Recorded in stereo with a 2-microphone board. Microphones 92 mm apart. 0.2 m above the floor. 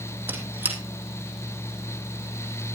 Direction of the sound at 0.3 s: 20° right (ahead or behind).